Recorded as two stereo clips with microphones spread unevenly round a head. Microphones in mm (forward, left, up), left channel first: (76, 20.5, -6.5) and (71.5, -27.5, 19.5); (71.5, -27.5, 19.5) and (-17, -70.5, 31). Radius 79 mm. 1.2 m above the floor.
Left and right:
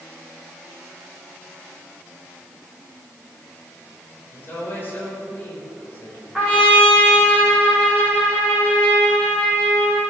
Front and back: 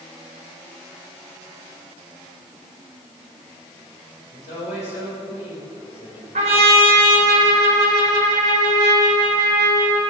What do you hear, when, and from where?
4.3 s a woman speaking: 35° left, 5.5 m
6.3 s a trumpet: straight behind, 2.5 m